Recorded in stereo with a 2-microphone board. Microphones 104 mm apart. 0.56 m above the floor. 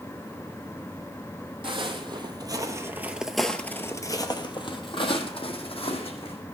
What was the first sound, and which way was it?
Footsteps, 55° right (ahead or behind).